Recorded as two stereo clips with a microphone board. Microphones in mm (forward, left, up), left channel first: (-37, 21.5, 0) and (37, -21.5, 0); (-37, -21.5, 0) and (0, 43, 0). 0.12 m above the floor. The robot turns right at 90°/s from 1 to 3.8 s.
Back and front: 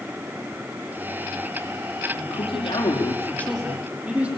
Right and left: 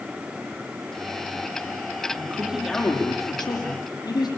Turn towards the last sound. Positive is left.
turn(degrees=-105)